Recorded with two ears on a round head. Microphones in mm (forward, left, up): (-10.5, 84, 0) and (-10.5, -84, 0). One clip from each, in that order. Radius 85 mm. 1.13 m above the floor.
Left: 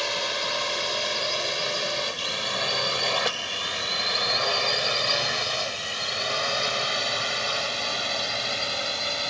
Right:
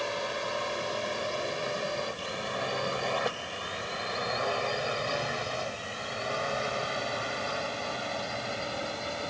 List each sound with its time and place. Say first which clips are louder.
0.0 s a drone: left 6 dB; 70° left (ahead or behind); by 9.3 s 75° left (ahead or behind)